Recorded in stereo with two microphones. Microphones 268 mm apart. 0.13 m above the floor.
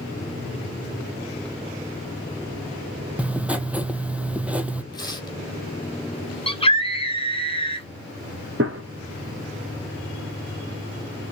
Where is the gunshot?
55° right (ahead or behind), 1.3 m.